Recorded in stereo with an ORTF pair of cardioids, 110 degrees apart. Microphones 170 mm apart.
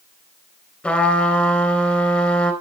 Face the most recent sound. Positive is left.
turn(degrees=5)